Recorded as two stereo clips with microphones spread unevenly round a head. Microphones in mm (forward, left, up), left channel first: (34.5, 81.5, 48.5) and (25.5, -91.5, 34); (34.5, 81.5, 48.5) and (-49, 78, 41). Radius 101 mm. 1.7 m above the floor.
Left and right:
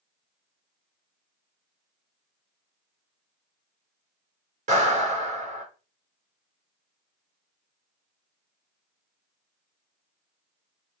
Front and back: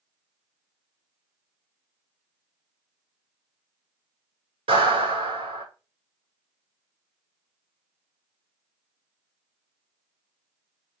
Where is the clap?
145° right, 6 m.